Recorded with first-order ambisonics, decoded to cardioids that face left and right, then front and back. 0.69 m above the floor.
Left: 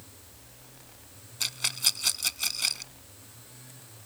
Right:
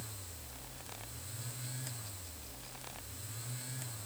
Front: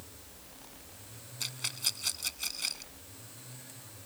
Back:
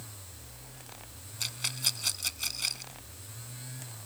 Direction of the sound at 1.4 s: 100° left.